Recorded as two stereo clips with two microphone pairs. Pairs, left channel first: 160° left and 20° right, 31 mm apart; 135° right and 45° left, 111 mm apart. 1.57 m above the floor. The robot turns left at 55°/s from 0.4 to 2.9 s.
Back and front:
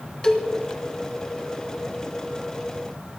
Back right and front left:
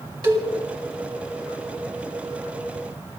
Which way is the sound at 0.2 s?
90° left.